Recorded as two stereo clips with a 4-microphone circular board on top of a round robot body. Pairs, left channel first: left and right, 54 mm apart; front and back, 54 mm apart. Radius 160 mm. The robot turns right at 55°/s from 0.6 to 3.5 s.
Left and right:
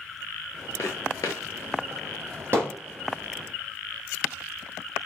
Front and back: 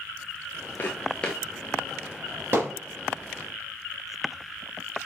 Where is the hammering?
135° right, 3 m; by 2.8 s 125° right, 3 m.